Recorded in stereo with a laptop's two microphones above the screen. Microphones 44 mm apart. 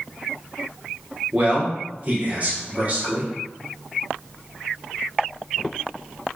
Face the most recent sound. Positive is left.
turn(degrees=-35)  # may be behind; listen again after turning